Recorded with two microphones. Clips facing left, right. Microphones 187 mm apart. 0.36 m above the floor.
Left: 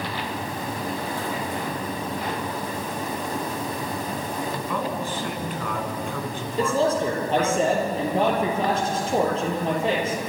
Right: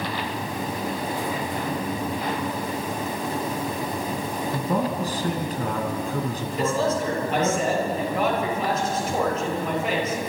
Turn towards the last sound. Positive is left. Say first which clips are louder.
# left 2 dB
turn(degrees=30)  # may be behind; listen again after turning